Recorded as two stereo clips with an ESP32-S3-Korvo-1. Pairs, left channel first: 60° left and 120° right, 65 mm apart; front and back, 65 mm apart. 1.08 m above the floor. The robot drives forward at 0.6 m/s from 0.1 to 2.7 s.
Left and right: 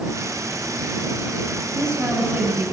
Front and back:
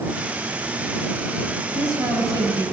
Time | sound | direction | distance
1.7 | a woman speaking | 170° right | 9 m